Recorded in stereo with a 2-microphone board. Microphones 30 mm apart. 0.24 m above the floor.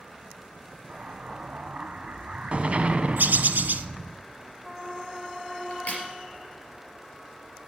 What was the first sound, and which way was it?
An explosion, 45° right (ahead or behind).